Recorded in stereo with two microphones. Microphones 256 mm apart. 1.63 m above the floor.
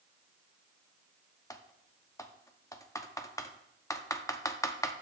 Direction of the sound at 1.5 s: 15° left (ahead or behind).